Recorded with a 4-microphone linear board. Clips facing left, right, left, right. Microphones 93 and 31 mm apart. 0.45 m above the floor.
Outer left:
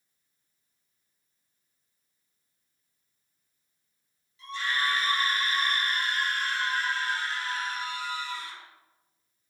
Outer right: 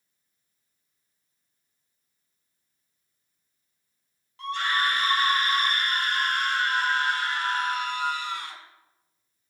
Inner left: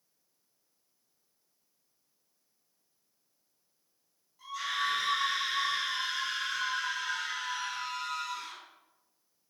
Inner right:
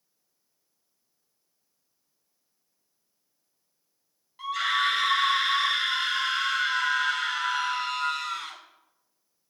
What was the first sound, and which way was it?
A scream, 65° right (ahead or behind).